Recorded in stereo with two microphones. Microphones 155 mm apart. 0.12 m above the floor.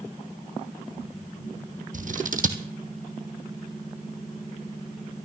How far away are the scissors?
About 1.1 m.